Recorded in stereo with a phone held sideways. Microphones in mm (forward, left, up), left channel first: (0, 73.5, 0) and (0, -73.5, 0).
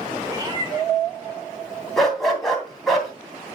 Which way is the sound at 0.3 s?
25° right (ahead or behind).